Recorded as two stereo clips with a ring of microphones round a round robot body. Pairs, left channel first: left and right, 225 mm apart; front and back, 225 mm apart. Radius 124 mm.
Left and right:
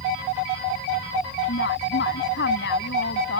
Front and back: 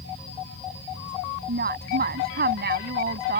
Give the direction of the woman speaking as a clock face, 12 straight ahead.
7 o'clock.